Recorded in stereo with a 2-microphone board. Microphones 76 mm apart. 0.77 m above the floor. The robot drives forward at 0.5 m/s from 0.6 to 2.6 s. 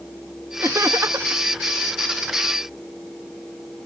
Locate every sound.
0.6 s laughter: 35° right (ahead or behind); by 1.4 s 40° right (ahead or behind)